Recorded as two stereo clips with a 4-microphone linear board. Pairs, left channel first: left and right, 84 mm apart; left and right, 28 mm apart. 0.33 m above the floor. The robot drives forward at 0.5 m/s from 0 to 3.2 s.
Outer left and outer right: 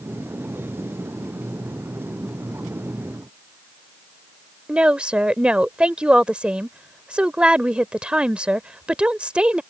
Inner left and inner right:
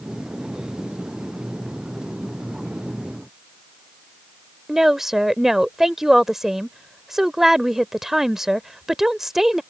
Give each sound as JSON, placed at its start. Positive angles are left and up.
{"t": 4.7, "sound": "a woman speaking", "side_deg": -15}